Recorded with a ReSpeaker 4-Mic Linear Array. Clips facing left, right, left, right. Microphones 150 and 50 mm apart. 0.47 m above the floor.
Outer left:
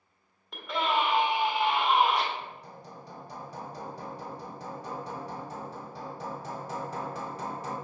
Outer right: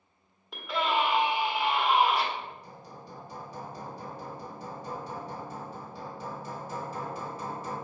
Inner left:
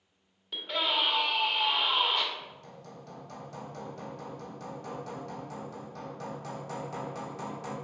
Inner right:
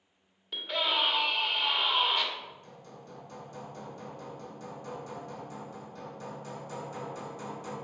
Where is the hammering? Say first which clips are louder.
Even, inner left 1 dB; 75° left (ahead or behind), 1.1 m.